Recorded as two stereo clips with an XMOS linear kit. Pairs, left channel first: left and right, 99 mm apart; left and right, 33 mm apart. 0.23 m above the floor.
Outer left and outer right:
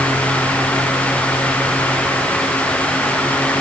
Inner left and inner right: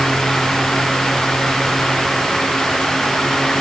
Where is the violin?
I don't hear a violin.